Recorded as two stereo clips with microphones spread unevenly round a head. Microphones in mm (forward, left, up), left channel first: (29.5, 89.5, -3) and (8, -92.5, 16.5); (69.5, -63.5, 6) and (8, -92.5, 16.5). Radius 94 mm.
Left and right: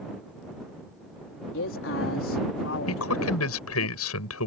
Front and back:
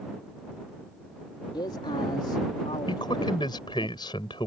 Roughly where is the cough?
I don't hear a cough.